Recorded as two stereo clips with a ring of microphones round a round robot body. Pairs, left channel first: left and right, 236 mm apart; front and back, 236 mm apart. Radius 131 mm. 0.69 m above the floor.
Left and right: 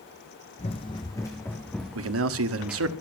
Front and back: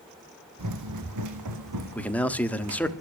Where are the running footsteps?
155° left, 2.0 m; by 3.0 s 175° right, 3.5 m.